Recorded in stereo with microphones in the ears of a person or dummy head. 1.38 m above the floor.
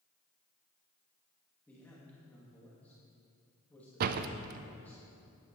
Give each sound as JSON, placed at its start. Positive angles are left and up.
{"t": 1.7, "sound": "a man speaking", "side_deg": 10, "distance_m": 2.0}
{"t": 4.0, "sound": "a door slam", "side_deg": -55, "distance_m": 0.5}